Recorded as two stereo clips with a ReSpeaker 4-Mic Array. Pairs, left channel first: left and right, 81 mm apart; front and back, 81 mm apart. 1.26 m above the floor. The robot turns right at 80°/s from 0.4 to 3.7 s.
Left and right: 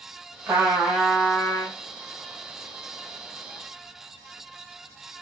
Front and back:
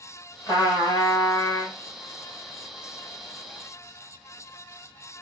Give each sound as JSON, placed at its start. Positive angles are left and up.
{"t": 0.5, "sound": "a trumpet", "azimuth_deg": -35, "distance_m": 1.8}